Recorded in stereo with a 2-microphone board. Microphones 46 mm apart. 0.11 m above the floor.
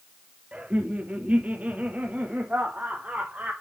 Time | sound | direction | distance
0.5 | laughter | 30° right (ahead or behind) | 1.6 m